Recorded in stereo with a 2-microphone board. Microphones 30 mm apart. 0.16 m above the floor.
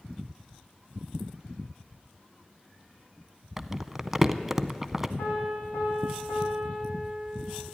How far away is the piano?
About 7 m.